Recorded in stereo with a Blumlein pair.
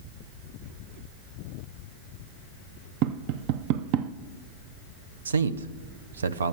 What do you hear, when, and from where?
3.0 s tapping: 45° right, 0.6 m
5.2 s a man speaking: 70° right, 0.6 m